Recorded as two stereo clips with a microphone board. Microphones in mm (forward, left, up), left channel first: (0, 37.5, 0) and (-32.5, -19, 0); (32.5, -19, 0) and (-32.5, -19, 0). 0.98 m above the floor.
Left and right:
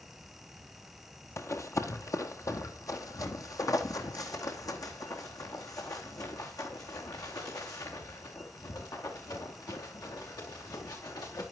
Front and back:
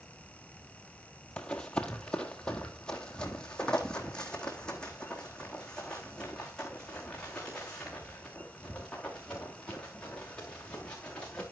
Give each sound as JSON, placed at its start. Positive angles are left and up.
{"t": 1.4, "sound": "running footsteps", "azimuth_deg": 70, "distance_m": 1.4}